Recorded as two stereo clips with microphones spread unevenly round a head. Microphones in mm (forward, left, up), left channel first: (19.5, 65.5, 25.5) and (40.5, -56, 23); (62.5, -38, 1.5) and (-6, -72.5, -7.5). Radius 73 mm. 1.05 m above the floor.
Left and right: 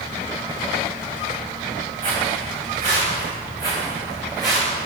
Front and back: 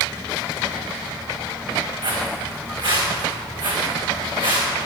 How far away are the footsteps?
About 6 m.